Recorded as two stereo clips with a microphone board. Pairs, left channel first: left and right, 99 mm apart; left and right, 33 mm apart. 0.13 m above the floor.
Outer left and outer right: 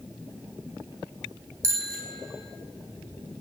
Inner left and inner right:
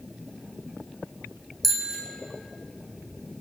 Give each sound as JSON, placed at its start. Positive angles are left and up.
{"t": 1.6, "sound": "a bicycle bell", "side_deg": 10, "distance_m": 4.5}